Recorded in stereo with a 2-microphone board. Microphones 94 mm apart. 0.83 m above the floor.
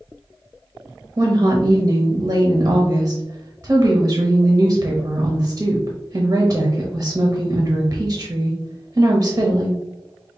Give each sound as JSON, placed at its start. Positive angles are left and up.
{"t": 1.2, "sound": "a woman speaking", "side_deg": -30, "distance_m": 0.7}